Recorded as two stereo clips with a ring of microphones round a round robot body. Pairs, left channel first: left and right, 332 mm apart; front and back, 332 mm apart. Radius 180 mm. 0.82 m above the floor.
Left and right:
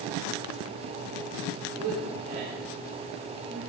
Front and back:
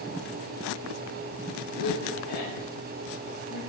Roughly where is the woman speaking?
Ahead.